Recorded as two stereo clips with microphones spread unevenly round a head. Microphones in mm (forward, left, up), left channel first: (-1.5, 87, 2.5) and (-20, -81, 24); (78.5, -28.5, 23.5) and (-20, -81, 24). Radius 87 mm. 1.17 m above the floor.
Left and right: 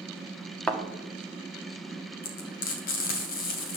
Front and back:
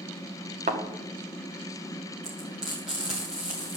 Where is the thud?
170° left, 1.0 m.